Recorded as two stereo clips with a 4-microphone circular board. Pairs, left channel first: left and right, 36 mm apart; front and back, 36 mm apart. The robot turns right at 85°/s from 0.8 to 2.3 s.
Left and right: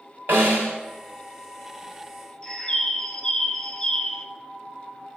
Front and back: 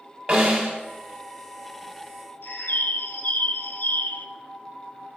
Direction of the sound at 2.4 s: 20° left.